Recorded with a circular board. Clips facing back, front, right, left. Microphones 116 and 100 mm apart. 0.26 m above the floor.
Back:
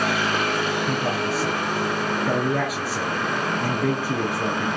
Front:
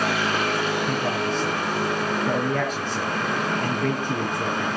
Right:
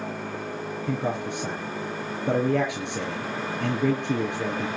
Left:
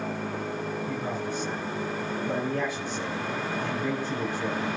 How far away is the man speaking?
About 4.5 m.